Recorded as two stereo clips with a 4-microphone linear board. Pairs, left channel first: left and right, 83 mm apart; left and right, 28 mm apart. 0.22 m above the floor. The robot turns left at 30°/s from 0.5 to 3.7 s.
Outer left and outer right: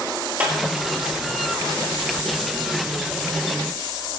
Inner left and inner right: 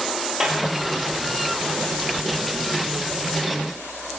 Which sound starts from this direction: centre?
A clap, at 0.4 s.